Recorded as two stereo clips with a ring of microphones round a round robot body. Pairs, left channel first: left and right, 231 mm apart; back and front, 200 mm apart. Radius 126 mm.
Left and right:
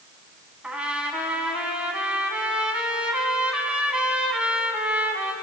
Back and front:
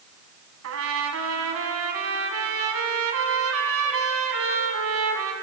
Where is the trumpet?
5° right, 1.9 m.